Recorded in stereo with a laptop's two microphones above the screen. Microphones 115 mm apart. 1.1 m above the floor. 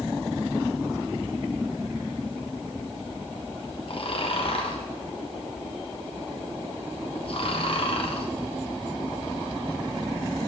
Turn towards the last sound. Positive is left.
turn(degrees=55)  # may be behind; listen again after turning